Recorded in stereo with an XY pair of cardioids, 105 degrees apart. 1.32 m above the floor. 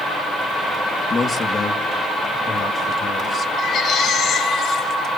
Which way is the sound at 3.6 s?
60° left.